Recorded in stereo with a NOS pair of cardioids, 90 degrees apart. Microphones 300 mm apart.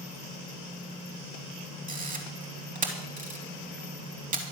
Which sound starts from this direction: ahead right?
A camera shutter, at 1.9 s.